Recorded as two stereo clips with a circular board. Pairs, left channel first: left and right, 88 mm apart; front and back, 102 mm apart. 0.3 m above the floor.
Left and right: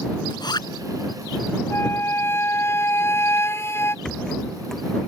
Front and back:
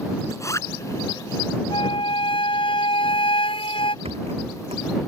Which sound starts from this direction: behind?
A rattle, at 4.0 s.